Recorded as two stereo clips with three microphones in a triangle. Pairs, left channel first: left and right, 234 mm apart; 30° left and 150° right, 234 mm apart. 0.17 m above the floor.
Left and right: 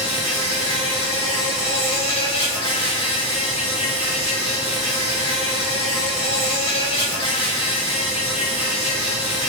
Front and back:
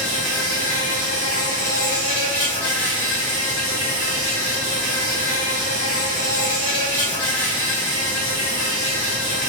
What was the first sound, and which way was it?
An insect, 25° left.